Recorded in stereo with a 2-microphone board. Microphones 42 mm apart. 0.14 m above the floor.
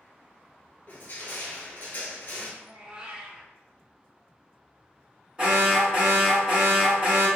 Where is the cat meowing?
20° right (ahead or behind), 0.6 m.